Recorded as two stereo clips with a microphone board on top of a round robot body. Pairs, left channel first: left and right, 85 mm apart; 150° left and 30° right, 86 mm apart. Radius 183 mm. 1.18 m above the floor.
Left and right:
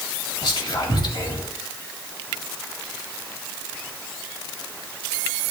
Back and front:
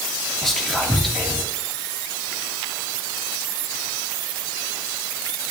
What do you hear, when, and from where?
0.4 s whispering: 65° left, 2.5 m